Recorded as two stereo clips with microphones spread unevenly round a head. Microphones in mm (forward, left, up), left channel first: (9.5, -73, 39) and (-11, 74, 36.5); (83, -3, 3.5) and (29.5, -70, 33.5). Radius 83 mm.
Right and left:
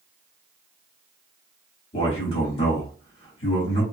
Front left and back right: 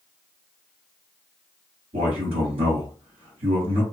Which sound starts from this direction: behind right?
A man speaking, at 1.9 s.